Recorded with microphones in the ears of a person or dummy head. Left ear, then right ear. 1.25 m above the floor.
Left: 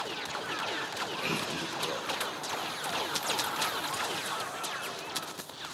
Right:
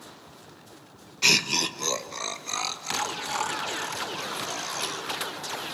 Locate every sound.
1.2 s laughter: 60° right (ahead or behind), 1.1 m; by 5.1 s 75° right (ahead or behind), 3.5 m